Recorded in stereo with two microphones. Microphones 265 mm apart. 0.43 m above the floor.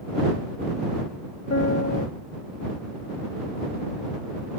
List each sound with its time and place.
1.5 s a piano: 75° left (ahead or behind)